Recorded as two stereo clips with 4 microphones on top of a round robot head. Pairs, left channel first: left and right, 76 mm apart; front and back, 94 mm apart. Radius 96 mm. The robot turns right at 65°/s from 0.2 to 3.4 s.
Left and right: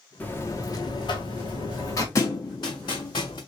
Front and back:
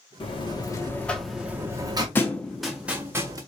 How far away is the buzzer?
About 1.5 m.